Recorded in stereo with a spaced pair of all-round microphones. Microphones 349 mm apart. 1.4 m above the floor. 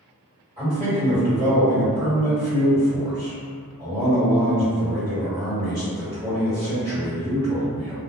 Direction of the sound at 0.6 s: 15° right (ahead or behind).